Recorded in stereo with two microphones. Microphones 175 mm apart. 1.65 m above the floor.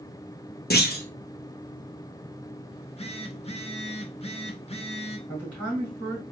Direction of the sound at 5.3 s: 10° left (ahead or behind).